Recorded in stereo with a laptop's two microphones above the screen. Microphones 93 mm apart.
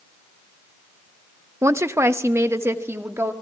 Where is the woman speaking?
30° right (ahead or behind), 0.7 m.